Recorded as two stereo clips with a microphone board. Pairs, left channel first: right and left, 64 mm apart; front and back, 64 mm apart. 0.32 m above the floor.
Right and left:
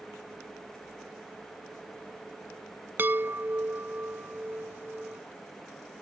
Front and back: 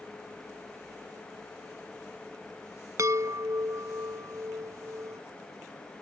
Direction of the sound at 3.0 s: 145° left.